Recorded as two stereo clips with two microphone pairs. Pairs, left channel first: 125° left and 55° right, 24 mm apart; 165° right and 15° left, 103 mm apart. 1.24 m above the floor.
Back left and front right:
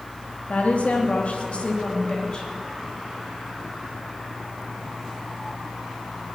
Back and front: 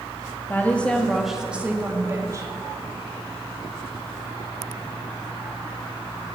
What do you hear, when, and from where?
0.5 s a woman speaking: 125° left, 2.5 m; by 2.5 s 70° left, 3 m